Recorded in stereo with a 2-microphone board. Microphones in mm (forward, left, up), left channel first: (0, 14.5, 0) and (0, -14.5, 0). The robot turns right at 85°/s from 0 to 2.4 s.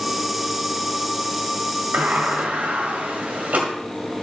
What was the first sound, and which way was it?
A sliding door, 110° right.